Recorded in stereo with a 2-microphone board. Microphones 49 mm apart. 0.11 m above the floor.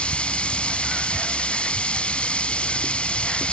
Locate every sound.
0.0 s running water: 20° left (ahead or behind)